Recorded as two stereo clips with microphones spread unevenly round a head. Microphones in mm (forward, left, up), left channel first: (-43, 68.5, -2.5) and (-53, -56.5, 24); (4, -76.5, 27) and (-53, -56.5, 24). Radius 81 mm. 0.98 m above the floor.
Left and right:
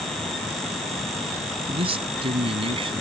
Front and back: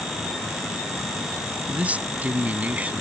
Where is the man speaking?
135° right.